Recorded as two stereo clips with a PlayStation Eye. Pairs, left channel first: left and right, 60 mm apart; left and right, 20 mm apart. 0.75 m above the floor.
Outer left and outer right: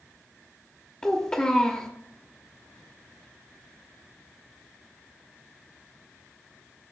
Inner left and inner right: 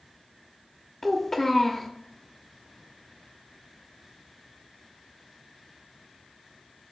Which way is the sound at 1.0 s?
20° left (ahead or behind).